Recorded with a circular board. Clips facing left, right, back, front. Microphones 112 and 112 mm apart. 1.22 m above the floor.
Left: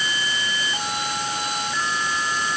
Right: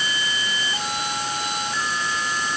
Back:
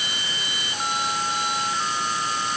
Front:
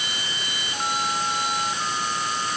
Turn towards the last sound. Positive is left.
No sound to turn to.